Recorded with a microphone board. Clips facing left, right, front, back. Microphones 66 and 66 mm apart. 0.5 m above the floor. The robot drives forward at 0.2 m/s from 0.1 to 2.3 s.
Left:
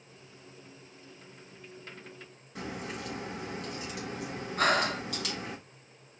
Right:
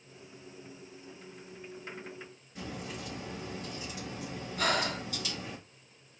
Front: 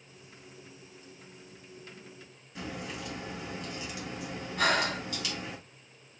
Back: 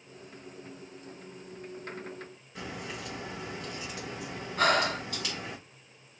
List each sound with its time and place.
2.5 s a crack: 120° left, 3.5 m
4.6 s breathing: 135° left, 3 m